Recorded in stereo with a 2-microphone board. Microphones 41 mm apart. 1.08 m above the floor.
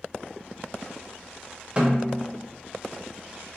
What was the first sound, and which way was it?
A snare drum, 25° right (ahead or behind).